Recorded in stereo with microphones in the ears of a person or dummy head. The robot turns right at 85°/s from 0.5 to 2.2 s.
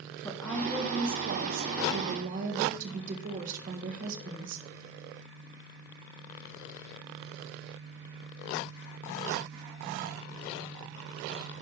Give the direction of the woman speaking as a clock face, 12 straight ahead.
6 o'clock.